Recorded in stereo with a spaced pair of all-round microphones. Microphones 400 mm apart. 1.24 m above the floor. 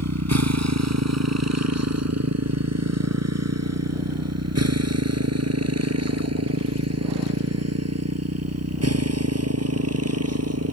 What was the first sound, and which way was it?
A motorcycle, 40° right (ahead or behind).